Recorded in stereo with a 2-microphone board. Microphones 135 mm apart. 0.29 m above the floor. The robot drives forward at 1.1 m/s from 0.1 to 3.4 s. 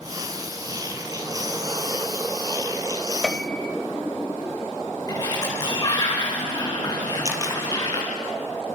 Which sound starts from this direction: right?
A camera shutter, at 7.2 s.